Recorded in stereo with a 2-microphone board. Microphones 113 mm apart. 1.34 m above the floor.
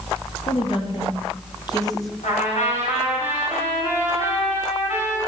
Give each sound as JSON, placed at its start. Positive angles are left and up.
{"t": 0.5, "sound": "a woman speaking", "side_deg": 55, "distance_m": 3.0}
{"t": 2.2, "sound": "a trumpet", "side_deg": 85, "distance_m": 6.0}